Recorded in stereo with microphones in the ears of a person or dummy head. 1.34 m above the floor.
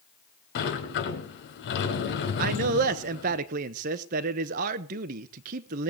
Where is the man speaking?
50° right (ahead or behind), 1.0 m.